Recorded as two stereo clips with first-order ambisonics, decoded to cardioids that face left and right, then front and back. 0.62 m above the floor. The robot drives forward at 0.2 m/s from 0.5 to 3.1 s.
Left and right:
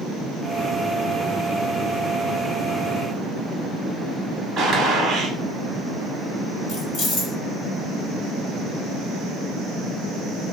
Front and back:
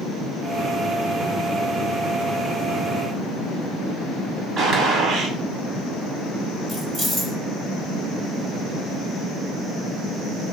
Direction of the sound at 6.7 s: 105° left.